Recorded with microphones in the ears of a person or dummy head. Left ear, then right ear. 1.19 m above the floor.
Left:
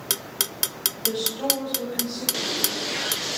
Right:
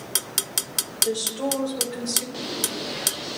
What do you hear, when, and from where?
1.0 s a woman speaking: 25° right (ahead or behind), 4.5 m; by 2.2 s 30° right (ahead or behind), 5 m
2.3 s a bird: 55° left (ahead or behind), 0.7 m